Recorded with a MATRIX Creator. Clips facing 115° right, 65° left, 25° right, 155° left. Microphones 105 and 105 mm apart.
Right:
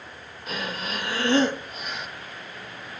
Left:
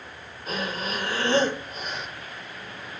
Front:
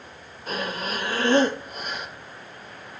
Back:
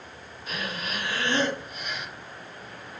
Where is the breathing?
20° left, 5.5 m.